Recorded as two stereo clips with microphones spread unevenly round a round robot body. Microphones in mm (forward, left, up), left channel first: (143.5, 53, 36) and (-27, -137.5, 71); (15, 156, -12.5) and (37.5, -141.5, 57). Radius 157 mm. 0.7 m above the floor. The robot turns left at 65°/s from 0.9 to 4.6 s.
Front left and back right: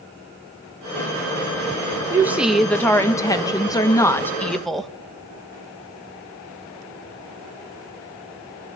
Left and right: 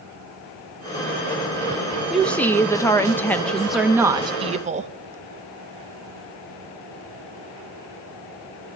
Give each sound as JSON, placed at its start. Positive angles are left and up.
{"t": 2.1, "sound": "a woman speaking", "azimuth_deg": 145, "distance_m": 0.8}